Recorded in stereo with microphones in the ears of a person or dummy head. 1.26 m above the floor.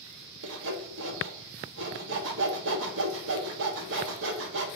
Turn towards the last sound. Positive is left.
turn(degrees=-70)  # may be behind; listen again after turning